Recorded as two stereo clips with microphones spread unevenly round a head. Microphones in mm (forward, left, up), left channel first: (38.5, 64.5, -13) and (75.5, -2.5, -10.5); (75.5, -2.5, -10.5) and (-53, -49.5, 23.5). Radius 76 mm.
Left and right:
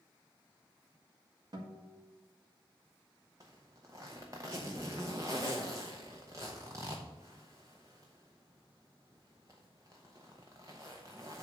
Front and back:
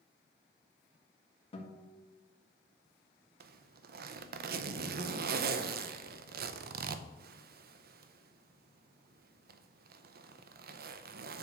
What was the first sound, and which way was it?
A guitar, 30° right.